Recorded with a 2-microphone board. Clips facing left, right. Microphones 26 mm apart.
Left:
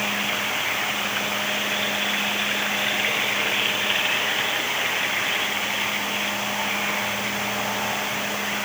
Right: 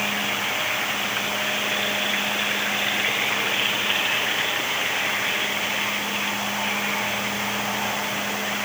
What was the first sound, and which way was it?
Only background noise.